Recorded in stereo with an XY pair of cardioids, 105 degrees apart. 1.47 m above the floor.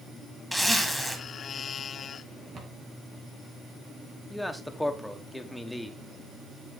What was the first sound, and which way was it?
A zipper, straight ahead.